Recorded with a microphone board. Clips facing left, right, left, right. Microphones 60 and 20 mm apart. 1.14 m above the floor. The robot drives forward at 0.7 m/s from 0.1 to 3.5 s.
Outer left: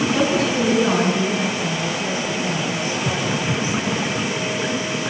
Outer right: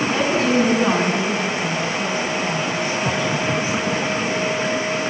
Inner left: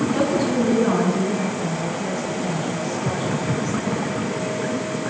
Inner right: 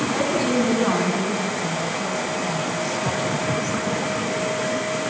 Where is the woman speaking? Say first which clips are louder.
Outer right 4 dB, inner right 1 dB; 35° right (ahead or behind), 10 m; by 3.8 s 45° right (ahead or behind), 8 m.